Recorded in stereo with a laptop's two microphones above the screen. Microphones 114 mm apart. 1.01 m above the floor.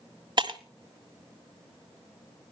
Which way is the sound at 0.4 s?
45° right (ahead or behind).